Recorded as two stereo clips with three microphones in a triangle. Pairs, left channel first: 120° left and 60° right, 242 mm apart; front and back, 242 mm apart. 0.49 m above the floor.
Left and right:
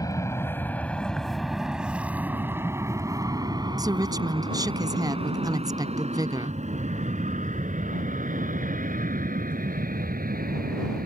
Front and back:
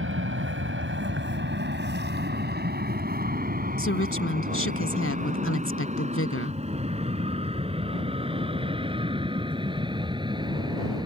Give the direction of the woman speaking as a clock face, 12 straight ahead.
12 o'clock.